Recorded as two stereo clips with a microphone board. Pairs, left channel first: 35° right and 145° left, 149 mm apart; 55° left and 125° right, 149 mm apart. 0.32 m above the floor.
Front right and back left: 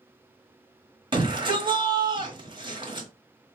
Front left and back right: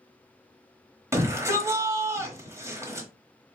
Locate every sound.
1.1 s a shout: 175° left, 1.1 m